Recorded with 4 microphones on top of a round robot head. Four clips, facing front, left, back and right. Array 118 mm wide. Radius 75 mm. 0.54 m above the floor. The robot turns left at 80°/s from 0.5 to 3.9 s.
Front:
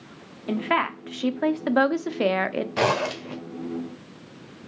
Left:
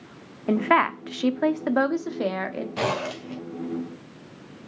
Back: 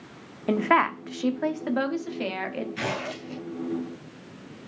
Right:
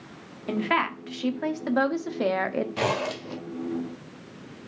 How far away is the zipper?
About 1.9 m.